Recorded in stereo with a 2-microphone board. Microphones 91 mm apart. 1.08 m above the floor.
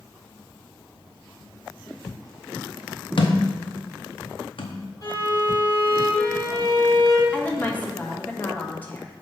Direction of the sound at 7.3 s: 15° left (ahead or behind).